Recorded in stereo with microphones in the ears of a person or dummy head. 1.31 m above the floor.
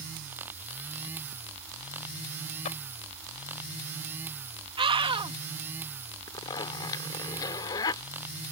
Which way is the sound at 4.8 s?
25° right (ahead or behind).